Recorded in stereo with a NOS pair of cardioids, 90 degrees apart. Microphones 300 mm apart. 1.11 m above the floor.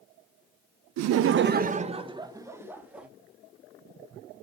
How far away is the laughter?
About 0.5 m.